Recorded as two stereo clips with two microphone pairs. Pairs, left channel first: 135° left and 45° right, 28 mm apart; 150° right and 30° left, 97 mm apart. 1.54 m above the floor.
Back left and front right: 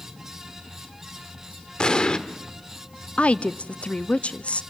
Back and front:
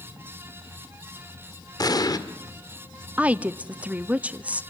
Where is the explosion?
Straight behind, 1.6 m.